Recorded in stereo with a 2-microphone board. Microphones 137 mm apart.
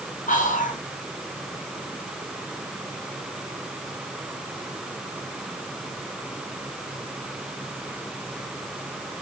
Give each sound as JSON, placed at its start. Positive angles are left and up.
{"t": 0.3, "sound": "whispering", "side_deg": 75, "distance_m": 0.9}